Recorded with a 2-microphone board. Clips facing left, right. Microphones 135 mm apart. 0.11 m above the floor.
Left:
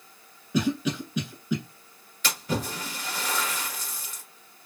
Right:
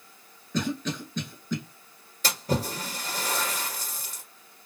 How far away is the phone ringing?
No phone ringing in this recording.